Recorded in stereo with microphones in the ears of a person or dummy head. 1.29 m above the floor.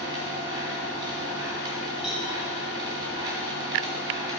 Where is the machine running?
15° right (ahead or behind), 1.7 m.